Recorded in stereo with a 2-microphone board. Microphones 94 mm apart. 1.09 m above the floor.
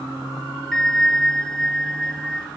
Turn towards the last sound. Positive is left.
turn(degrees=5)  # may be behind; listen again after turning